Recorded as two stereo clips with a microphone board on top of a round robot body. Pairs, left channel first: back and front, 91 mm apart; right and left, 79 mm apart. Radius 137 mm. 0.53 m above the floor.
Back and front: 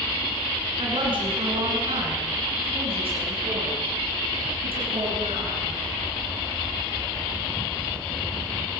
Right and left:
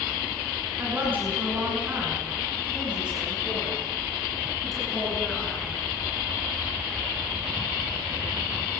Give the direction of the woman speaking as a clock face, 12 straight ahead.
11 o'clock.